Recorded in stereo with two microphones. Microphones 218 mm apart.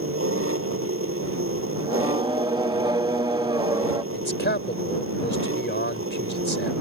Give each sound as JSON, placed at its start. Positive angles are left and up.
{"t": 0.0, "sound": "an engine running", "side_deg": -75}
{"t": 1.8, "sound": "singing", "side_deg": -20}
{"t": 4.1, "sound": "a man speaking", "side_deg": 55}